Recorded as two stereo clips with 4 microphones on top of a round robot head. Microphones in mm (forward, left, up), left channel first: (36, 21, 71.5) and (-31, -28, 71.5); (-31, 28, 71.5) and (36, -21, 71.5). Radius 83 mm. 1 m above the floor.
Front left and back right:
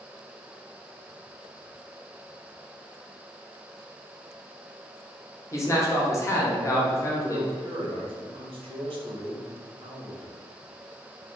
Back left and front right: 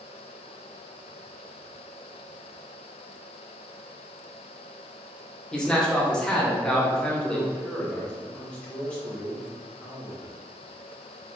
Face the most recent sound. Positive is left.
turn(degrees=-135)